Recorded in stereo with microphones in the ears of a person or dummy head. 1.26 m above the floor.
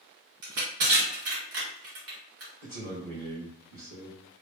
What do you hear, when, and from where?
0.4 s crushing: 50° right (ahead or behind), 1.5 m
2.6 s a man speaking: 40° right (ahead or behind), 1.6 m